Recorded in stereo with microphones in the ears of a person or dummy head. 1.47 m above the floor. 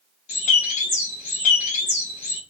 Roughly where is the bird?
Left.